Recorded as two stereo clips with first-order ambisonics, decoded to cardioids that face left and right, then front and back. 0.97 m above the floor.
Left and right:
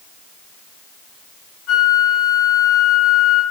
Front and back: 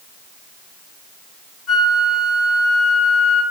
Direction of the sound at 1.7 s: 60° left.